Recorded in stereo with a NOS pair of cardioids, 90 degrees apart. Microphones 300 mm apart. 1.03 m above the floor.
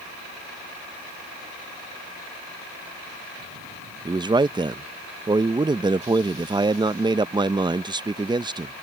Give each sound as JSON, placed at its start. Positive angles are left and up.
{"t": 4.0, "sound": "a man speaking", "azimuth_deg": -15}